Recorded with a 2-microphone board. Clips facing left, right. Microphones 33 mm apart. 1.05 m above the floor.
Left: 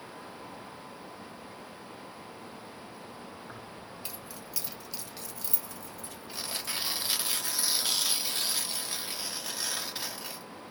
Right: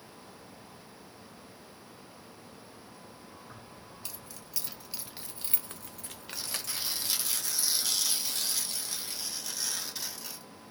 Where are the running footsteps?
No running footsteps in this recording.